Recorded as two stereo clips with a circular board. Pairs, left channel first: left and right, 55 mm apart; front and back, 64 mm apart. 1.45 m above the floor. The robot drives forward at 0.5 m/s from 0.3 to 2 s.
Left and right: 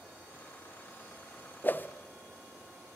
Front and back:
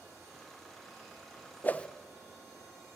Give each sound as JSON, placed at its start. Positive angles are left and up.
{"t": 1.6, "sound": "a whoosh", "azimuth_deg": 50, "distance_m": 0.6}